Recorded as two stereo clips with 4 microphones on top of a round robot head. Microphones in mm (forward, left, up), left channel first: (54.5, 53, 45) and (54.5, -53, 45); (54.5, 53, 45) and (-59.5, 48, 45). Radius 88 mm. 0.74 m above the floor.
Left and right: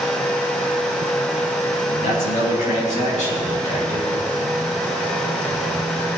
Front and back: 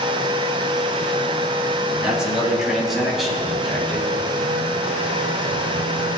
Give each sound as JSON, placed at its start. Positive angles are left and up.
{"t": 1.9, "sound": "a man speaking", "azimuth_deg": 100, "distance_m": 5.5}